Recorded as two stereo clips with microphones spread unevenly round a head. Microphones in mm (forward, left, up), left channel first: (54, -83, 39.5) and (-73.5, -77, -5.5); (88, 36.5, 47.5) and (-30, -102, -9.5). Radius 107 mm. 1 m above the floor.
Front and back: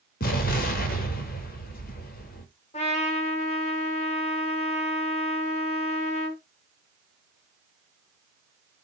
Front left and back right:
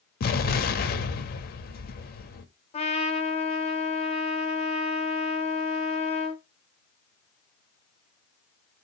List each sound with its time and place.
0.2 s an explosion: 10° left, 1.0 m
2.7 s a trumpet: 5° left, 1.1 m